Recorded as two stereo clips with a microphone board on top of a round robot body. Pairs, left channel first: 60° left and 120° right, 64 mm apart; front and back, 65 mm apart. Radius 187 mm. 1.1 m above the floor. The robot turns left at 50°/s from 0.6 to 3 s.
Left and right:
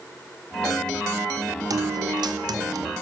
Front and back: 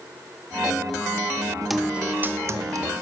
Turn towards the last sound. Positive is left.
turn(degrees=-155)